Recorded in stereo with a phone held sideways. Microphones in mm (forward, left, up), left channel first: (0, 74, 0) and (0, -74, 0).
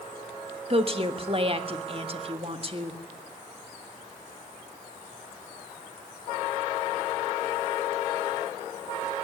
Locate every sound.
0.7 s a woman speaking: 40° right (ahead or behind), 1.6 m